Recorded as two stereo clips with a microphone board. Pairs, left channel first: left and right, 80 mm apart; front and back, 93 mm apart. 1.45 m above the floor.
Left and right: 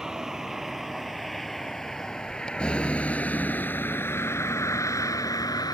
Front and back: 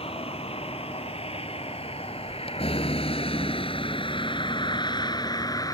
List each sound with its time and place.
0.0 s a vehicle: 5° right; by 5.7 s 50° left